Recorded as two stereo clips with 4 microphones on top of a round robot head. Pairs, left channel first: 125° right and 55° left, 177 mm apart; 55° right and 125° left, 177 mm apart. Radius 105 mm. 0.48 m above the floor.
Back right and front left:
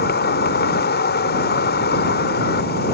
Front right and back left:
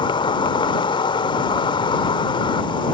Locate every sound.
0.0 s an insect: 115° right